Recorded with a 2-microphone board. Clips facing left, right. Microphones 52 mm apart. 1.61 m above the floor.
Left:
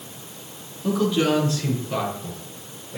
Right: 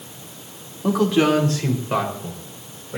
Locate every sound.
0.8 s a man speaking: 70° right (ahead or behind), 3 m; by 3.0 s 60° right (ahead or behind), 6.5 m